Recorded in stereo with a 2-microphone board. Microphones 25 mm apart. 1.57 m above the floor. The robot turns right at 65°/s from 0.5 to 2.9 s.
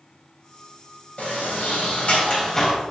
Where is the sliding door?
60° left, 3.5 m; by 2.8 s 165° left, 3.5 m.